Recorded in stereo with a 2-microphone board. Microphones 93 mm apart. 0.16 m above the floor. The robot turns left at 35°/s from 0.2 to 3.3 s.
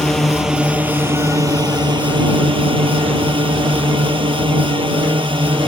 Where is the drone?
5° left; by 5.7 s 105° right.